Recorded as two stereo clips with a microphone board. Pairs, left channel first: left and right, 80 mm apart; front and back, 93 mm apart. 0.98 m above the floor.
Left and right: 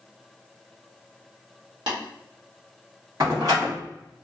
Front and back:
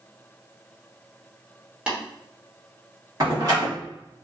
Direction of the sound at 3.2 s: 130° right.